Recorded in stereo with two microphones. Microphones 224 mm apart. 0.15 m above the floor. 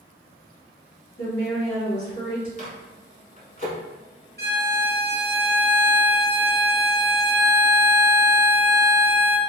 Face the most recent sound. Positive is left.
turn(degrees=-50)  # may be behind; listen again after turning